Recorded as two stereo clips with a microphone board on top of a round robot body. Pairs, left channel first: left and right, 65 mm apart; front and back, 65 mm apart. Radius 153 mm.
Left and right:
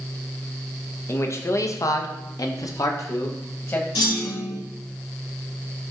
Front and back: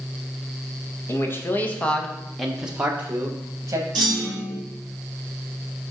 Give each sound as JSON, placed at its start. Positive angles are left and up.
{"t": 1.1, "sound": "a man speaking", "azimuth_deg": 45, "distance_m": 1.6}
{"t": 4.0, "sound": "a clunk", "azimuth_deg": 85, "distance_m": 2.5}